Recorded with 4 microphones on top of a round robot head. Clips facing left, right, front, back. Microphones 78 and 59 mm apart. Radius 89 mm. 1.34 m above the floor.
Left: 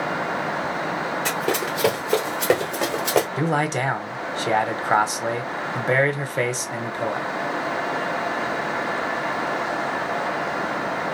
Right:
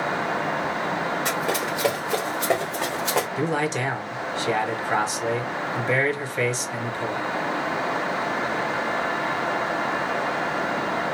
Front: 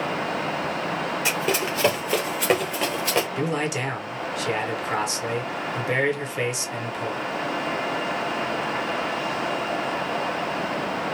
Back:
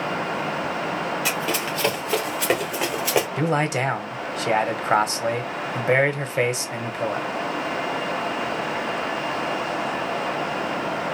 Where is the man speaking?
130° left, 1.2 m.